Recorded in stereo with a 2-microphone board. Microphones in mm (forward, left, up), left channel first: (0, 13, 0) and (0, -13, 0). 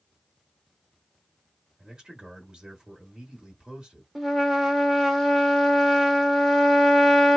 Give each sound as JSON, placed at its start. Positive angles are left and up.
{"t": 1.8, "sound": "a man speaking", "side_deg": -35, "distance_m": 1.3}
{"t": 4.2, "sound": "a trumpet", "side_deg": 0, "distance_m": 0.9}